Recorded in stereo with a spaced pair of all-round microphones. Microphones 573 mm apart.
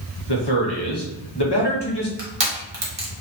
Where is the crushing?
50° right (ahead or behind), 1.1 m.